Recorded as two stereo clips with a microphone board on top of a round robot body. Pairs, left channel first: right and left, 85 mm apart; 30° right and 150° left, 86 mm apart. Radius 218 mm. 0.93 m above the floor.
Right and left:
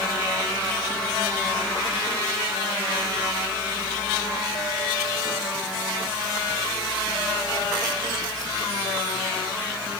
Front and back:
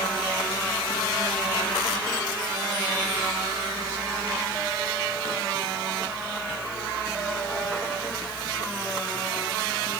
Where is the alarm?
I don't hear an alarm.